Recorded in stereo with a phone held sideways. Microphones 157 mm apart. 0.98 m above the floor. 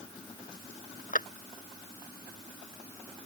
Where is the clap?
60° left (ahead or behind).